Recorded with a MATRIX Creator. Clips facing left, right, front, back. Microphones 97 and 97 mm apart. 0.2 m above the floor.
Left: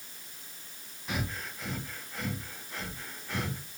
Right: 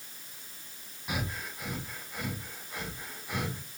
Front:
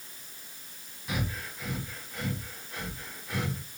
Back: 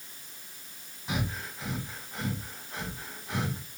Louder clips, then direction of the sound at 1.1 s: Even, back 1 dB; 150° right.